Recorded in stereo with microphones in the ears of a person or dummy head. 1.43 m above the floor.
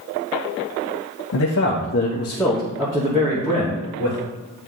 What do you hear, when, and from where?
1.3 s a man speaking: 75° left (ahead or behind), 1.2 m; by 4.2 s 40° right (ahead or behind), 2.5 m